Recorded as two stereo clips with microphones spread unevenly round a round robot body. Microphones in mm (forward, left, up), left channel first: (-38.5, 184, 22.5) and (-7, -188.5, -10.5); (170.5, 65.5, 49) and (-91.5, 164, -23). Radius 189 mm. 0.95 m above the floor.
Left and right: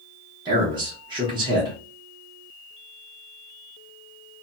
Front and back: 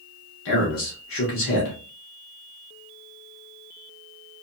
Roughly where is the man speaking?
Ahead right.